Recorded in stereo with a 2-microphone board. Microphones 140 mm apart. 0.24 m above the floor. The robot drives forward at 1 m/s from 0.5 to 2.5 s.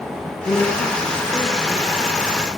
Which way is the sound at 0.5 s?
25° left (ahead or behind).